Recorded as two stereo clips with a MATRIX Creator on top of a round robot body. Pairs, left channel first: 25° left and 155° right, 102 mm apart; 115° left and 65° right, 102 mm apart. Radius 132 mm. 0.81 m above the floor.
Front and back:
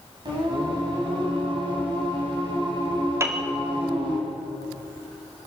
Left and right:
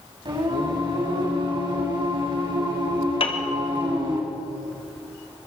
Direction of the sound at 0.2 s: 110° right.